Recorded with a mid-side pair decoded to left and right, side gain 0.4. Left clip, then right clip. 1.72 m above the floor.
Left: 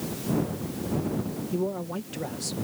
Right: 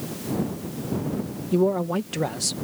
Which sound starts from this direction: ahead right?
A man speaking, at 1.5 s.